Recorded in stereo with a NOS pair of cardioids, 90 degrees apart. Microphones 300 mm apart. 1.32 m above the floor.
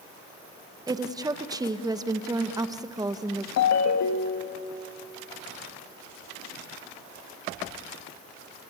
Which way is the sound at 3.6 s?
65° left.